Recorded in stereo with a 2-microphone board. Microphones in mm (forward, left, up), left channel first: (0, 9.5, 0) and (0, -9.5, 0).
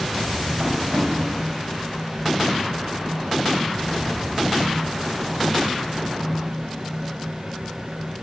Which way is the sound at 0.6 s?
65° right (ahead or behind).